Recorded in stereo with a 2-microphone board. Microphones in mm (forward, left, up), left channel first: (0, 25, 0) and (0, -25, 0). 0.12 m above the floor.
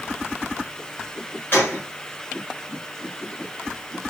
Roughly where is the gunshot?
Left.